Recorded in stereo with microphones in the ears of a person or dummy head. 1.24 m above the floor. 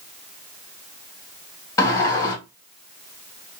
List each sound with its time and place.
1.8 s a sliding door: 20° left (ahead or behind), 1.3 m